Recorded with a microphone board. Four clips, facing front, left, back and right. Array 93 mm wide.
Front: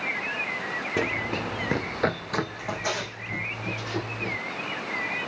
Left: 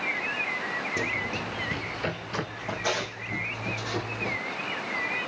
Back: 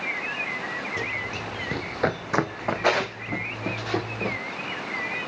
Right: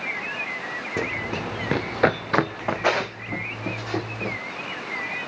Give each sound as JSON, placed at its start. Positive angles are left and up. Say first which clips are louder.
{"t": 1.0, "sound": "running footsteps", "louder": "right 3 dB, front 3 dB", "azimuth_deg": -35, "distance_m": 0.9}